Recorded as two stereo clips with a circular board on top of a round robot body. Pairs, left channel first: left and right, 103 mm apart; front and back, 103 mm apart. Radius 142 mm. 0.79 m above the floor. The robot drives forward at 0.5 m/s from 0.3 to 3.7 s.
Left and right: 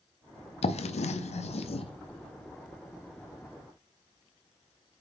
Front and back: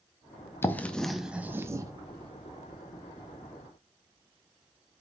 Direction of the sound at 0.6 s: 70° left.